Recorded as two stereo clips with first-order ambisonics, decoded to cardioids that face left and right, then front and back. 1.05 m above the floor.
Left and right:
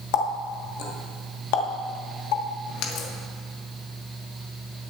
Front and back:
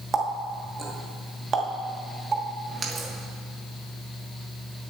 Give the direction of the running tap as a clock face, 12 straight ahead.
8 o'clock.